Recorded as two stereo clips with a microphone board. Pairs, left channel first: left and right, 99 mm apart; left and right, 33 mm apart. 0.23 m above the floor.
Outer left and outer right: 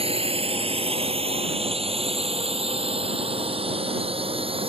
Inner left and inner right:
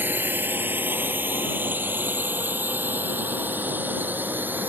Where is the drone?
75° right (ahead or behind); by 4.7 s 65° right (ahead or behind).